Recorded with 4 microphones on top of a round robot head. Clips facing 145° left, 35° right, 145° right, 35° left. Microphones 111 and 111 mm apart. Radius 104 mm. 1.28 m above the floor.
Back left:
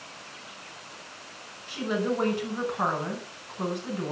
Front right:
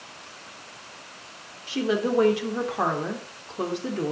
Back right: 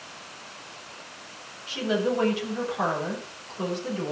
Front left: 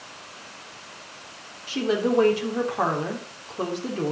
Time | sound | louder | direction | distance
1.7 | a woman speaking | front right 4 dB, front left 3 dB | 15° right | 3.5 m